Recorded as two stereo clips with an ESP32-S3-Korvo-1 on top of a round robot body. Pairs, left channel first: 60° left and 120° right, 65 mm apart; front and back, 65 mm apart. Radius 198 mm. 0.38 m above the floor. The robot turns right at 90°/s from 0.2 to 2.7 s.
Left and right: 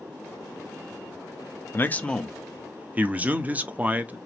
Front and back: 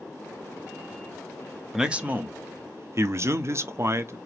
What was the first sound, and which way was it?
A man speaking, 95° left.